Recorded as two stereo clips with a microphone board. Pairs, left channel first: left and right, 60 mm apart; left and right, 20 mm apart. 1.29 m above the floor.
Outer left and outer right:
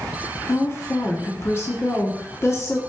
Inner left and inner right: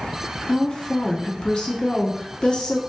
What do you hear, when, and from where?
0.5 s a woman speaking: 40° left (ahead or behind), 1.3 m